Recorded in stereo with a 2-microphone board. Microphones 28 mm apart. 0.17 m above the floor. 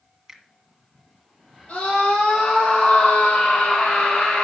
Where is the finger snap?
20° right (ahead or behind), 1.6 m.